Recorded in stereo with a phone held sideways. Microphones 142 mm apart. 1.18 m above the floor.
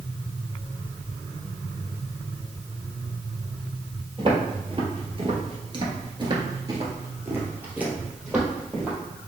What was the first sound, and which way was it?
Footsteps, 40° right (ahead or behind).